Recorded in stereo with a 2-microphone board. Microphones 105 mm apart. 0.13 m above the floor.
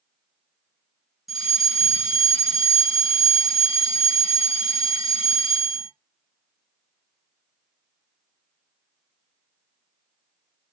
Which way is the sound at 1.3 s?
Centre (ahead or behind).